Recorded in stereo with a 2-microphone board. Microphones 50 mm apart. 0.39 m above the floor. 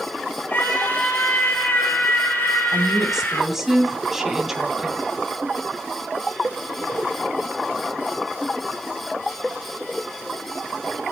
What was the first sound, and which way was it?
A scream, 40° left (ahead or behind).